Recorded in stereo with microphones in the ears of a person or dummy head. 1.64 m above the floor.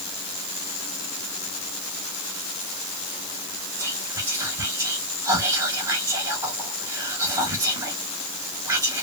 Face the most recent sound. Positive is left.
turn(degrees=-15)  # may be behind; listen again after turning